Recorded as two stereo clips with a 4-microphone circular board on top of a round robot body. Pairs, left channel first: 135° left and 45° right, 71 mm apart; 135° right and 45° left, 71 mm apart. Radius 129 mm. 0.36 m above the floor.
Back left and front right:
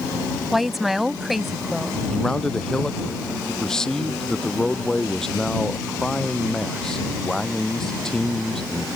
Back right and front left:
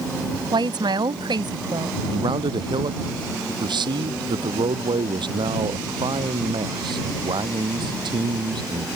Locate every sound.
0.5 s a woman speaking: 40° left
2.1 s a man speaking: 50° left